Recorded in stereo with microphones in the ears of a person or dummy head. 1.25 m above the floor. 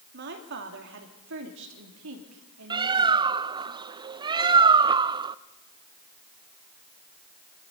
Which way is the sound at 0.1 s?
55° right (ahead or behind).